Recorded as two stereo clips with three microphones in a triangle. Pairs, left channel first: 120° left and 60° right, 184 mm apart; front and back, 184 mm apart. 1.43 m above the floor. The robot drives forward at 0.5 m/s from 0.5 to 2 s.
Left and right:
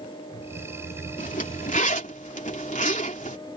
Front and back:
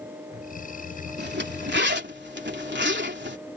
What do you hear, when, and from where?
1.2 s a zipper: 165° left